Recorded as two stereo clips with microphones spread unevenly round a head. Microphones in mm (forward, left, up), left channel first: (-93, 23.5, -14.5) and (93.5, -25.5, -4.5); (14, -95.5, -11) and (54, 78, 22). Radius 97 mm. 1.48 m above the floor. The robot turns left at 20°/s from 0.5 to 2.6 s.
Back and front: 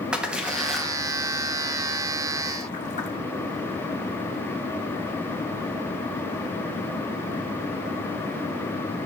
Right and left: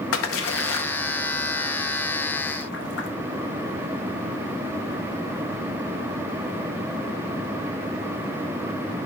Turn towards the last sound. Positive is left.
turn(degrees=-140)